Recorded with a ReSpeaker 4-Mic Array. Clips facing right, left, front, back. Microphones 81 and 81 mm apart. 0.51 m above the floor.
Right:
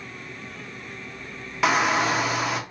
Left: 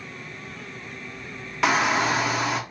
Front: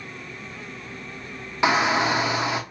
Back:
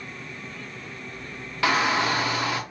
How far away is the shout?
About 0.6 m.